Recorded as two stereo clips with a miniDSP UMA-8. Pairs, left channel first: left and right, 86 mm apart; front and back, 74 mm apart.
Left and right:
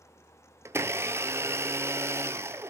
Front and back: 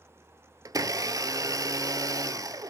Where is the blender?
150° right, 0.9 m.